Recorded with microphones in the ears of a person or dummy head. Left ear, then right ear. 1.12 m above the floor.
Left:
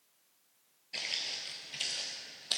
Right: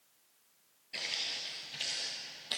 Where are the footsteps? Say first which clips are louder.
Even; 5° left (ahead or behind), 1.1 m; by 2.6 s 20° left (ahead or behind), 2 m.